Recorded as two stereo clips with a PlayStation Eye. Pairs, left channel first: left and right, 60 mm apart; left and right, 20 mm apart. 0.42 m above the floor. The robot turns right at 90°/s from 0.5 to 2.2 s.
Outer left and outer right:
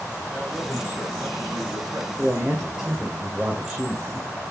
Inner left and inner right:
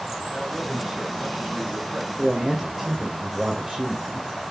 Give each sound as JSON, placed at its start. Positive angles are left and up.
{"t": 0.3, "sound": "a man speaking", "azimuth_deg": 180, "distance_m": 3.0}
{"t": 2.2, "sound": "a man speaking", "side_deg": -15, "distance_m": 2.0}